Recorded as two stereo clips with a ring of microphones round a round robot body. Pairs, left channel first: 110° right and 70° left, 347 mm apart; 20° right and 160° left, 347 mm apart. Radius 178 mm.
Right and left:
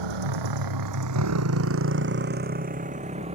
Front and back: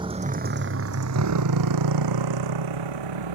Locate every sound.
0.0 s a motorcycle: 80° left; by 3.4 s 140° left